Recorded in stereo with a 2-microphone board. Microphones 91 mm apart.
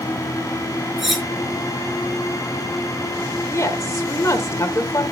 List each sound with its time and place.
1.0 s cutlery clinking: 5° right (ahead or behind), 5 m
3.5 s a woman speaking: 40° left (ahead or behind), 1.7 m